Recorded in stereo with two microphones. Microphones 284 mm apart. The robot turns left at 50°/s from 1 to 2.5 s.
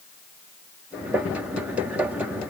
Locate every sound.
Only background noise.